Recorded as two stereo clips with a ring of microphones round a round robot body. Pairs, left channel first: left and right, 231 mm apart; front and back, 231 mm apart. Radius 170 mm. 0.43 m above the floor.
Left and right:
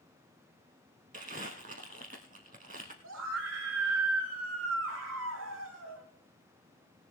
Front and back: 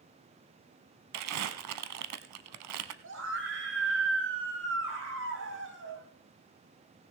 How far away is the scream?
About 2.5 m.